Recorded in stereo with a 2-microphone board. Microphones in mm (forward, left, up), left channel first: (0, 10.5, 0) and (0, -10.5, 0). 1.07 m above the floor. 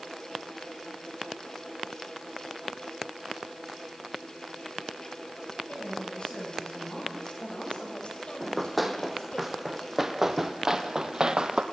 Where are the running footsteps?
5° left (ahead or behind), 3 m; by 11.6 s 40° right (ahead or behind), 2 m.